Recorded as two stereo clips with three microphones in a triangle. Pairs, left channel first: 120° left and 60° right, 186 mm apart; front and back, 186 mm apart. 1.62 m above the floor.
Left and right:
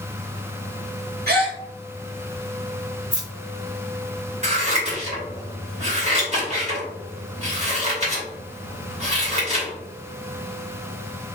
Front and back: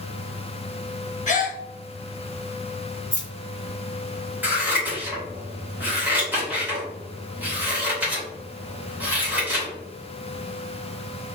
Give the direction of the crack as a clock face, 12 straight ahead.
No crack in this recording.